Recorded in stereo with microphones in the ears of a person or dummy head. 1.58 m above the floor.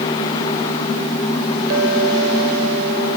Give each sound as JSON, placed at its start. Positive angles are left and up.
{"t": 1.7, "sound": "a clink", "side_deg": -75}